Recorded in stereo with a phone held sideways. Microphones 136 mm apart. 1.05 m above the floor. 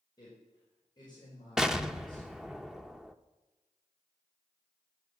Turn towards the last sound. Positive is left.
turn(degrees=-5)  # may be behind; listen again after turning